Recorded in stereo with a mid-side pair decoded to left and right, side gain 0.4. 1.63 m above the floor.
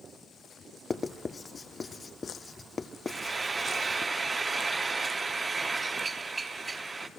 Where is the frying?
35° right, 0.7 m.